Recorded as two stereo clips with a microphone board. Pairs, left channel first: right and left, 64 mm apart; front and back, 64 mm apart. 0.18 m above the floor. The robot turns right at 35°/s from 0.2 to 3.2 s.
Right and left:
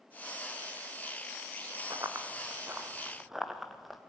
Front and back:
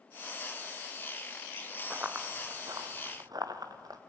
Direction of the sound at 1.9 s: 115° left.